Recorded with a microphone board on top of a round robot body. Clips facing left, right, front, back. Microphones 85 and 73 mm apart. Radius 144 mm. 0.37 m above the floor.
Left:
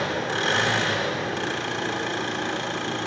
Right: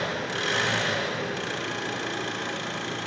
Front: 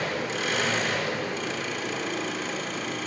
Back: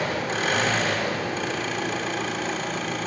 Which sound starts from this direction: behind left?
An engine running, at 0.0 s.